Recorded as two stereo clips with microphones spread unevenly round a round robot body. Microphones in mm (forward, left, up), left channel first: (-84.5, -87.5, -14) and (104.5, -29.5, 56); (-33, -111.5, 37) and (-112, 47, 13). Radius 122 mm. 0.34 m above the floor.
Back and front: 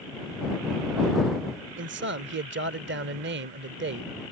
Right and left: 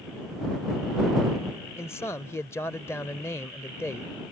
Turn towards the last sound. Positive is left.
turn(degrees=15)